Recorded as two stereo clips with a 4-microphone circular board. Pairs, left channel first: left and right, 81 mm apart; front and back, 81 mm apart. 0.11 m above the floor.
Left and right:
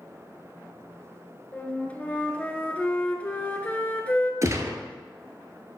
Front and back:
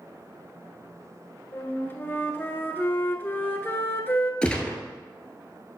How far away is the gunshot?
About 1.0 m.